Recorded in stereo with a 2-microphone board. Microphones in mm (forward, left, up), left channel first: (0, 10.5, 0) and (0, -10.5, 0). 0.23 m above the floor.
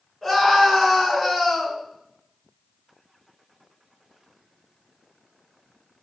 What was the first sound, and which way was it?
A scream, 10° left (ahead or behind).